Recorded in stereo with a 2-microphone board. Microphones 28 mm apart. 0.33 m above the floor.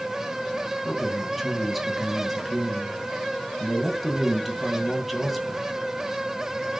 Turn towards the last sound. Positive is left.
turn(degrees=0)  # may be behind; listen again after turning